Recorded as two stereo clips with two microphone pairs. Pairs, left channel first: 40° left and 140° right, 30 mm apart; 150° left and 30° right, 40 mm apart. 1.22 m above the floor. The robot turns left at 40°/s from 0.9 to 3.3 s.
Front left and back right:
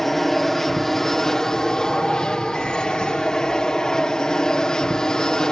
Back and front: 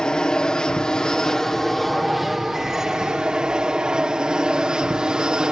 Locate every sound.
0.0 s an aircraft: 110° left; by 5.5 s 10° left